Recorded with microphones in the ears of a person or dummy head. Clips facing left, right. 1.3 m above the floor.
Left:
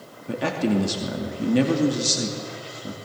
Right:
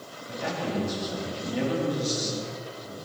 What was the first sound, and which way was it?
A man speaking, 70° left (ahead or behind).